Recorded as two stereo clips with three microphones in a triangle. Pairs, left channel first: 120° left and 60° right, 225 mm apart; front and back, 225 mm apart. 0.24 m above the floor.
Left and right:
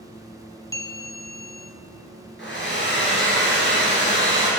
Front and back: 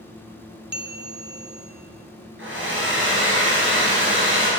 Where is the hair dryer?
155° left, 2.5 m.